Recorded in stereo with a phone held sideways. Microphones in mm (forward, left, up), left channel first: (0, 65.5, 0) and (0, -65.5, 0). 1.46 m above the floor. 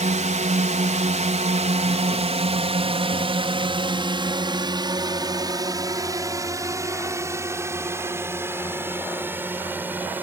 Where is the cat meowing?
No cat meowing in this recording.